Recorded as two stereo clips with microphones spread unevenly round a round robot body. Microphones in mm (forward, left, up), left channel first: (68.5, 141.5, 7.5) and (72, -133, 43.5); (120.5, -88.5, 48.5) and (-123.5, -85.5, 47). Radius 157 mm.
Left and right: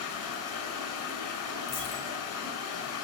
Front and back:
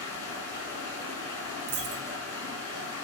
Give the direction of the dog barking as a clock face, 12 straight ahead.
I don't hear a dog barking.